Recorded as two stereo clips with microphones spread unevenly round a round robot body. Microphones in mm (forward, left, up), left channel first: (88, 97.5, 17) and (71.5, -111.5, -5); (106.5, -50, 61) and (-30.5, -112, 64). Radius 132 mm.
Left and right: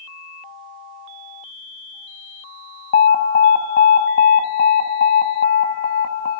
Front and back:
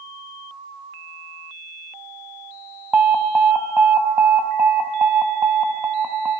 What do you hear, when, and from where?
2.9 s an alarm: 125° left, 0.7 m